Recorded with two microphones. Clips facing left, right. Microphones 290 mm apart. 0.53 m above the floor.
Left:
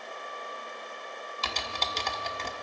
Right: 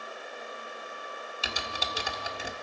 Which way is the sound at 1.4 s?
10° right (ahead or behind).